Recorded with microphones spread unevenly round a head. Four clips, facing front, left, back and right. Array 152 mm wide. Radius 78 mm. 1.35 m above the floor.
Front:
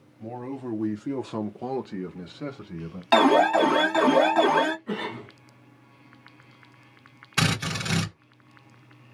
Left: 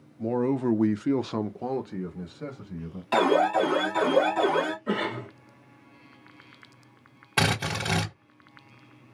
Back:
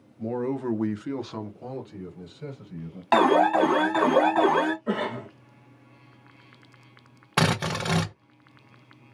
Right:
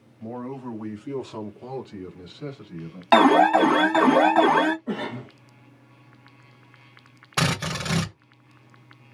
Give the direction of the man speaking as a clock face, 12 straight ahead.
8 o'clock.